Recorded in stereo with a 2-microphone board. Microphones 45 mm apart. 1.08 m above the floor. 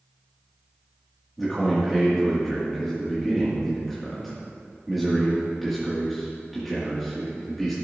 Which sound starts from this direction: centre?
A man speaking, at 1.4 s.